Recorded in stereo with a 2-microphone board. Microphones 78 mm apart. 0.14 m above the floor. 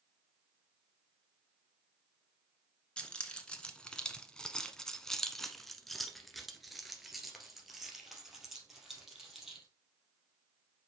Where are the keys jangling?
15° left (ahead or behind), 1.1 m; by 9.7 s 5° right (ahead or behind), 3 m.